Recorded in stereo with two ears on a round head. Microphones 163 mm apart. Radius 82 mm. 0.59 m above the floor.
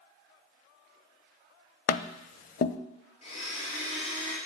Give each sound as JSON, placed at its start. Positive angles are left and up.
{"t": 1.9, "sound": "tapping", "side_deg": 45, "distance_m": 0.5}
{"t": 3.2, "sound": "a blender", "side_deg": 35, "distance_m": 3.5}